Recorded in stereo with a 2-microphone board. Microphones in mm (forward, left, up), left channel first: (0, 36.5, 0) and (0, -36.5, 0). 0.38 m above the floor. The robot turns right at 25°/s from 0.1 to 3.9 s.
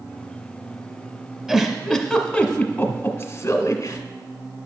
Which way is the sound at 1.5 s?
10° right (ahead or behind).